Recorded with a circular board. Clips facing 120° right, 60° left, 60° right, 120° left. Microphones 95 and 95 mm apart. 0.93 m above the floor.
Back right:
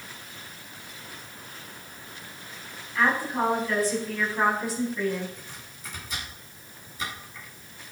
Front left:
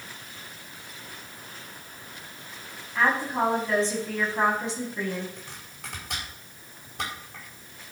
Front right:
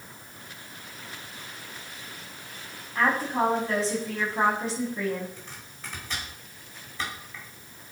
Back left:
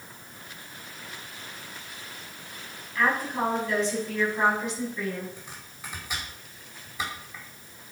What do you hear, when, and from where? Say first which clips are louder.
3.0 s a woman speaking: even, front right 1 dB; 5° right, 7 m
5.4 s chopping: front left 1 dB, even; 40° left, 5 m